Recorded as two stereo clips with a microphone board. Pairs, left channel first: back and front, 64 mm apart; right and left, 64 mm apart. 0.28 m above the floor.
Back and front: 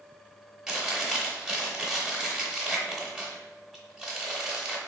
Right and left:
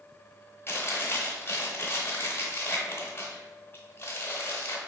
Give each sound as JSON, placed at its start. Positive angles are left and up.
{"t": 0.7, "sound": "chewing", "azimuth_deg": -80, "distance_m": 0.9}